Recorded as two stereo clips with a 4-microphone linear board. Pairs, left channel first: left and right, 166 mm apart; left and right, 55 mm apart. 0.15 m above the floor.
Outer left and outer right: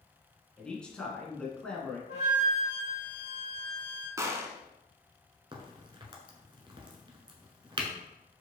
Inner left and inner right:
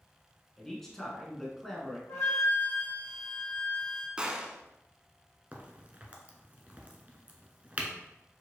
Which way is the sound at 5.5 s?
30° right (ahead or behind).